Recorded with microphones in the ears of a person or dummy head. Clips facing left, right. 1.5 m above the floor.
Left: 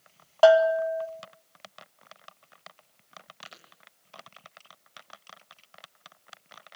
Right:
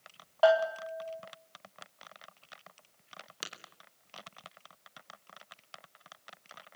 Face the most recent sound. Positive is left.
turn(degrees=-75)  # may be behind; listen again after turning